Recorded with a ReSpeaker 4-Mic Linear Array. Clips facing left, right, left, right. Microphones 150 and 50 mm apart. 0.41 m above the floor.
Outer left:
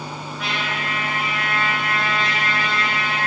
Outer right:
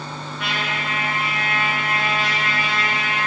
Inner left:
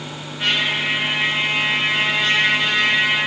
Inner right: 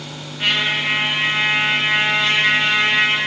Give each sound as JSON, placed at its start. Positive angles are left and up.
{"t": 0.4, "sound": "a trumpet", "side_deg": 0, "distance_m": 5.0}